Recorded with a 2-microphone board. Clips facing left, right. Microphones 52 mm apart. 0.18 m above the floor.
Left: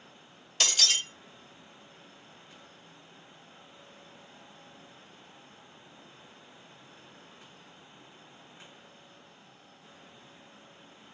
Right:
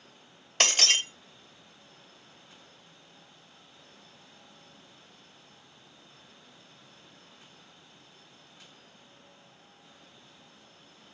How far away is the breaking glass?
About 0.9 m.